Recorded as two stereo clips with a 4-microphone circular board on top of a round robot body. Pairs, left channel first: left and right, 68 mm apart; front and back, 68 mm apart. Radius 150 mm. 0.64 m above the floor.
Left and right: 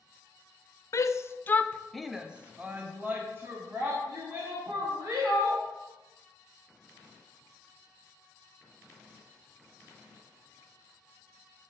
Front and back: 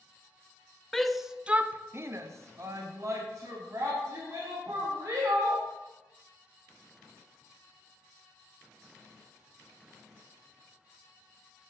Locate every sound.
0.9 s a shout: 85° left, 0.9 m; by 5.6 s 135° right, 3 m